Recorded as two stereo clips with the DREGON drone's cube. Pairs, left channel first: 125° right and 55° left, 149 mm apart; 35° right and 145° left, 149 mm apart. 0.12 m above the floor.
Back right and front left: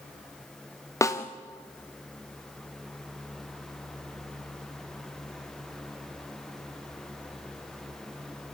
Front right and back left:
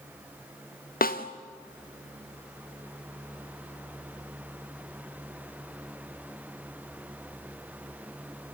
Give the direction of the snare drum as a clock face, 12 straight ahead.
2 o'clock.